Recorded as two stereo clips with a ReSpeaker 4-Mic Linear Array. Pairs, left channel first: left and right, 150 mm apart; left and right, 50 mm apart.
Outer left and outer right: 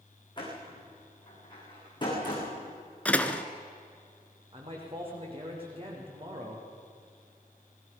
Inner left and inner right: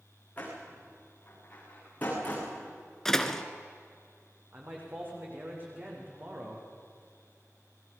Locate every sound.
0.4 s a door slam: 30° left (ahead or behind), 7.5 m
3.0 s a door slam: 10° left (ahead or behind), 1.3 m
4.5 s a man speaking: 35° right (ahead or behind), 7 m